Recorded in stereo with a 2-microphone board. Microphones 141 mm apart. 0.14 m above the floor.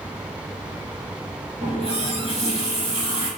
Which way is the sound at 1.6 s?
45° right (ahead or behind).